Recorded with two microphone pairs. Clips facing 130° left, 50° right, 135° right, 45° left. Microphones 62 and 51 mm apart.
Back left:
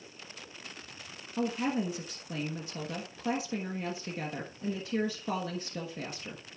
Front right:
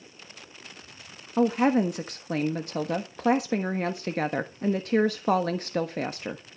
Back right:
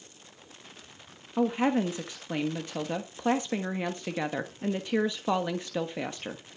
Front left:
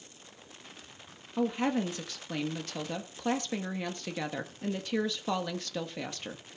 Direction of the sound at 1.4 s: 65° right.